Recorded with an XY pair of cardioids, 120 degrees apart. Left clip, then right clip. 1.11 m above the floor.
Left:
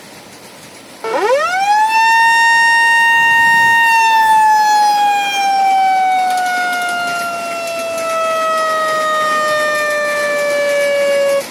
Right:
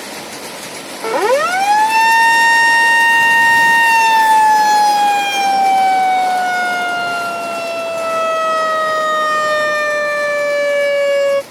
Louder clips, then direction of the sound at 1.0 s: Even; straight ahead.